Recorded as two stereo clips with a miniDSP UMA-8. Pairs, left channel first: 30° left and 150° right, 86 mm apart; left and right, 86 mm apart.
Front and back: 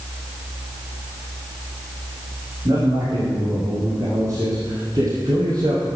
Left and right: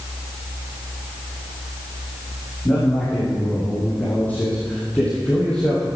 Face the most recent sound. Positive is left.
turn(degrees=170)